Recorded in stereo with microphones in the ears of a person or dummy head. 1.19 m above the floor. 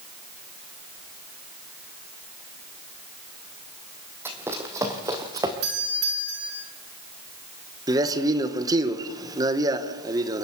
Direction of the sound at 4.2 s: 15° right (ahead or behind).